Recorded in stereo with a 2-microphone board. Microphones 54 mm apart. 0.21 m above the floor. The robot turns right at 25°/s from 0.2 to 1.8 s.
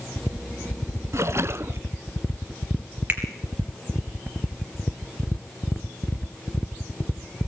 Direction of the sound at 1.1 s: 60° right (ahead or behind).